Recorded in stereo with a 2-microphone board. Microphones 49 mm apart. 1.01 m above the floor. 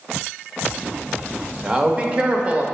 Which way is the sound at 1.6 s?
20° right (ahead or behind).